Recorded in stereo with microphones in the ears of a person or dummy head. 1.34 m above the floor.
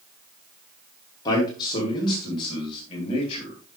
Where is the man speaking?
25° left (ahead or behind), 2.5 m; by 3.6 s 35° left (ahead or behind), 3.5 m.